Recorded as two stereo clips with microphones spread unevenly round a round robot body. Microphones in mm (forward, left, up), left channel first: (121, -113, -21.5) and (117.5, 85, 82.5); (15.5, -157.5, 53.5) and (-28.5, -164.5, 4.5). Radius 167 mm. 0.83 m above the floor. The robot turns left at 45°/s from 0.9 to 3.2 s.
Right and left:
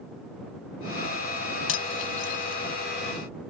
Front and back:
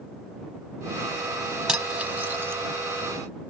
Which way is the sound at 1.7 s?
90° right.